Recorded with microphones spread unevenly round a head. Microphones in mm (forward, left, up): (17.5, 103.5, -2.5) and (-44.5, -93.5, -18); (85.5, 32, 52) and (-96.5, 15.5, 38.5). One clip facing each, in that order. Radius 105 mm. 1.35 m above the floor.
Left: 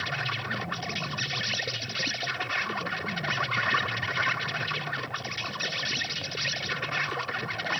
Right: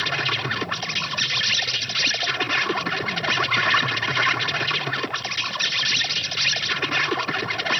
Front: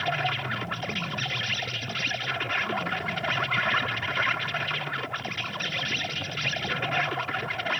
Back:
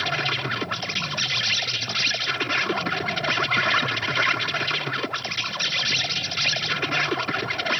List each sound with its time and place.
0.0 s an insect: 125° right